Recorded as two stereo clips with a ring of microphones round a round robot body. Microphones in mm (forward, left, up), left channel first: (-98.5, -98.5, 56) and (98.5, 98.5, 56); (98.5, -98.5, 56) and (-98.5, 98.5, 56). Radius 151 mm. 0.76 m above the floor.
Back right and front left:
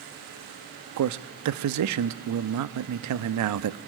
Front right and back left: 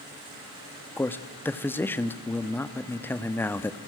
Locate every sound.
1.0 s a man speaking: 35° left, 1.1 m